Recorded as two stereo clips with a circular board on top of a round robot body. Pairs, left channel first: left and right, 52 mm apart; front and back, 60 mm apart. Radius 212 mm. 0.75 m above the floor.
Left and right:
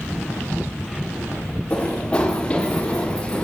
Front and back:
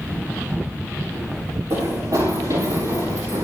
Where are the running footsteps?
160° left, 6 m.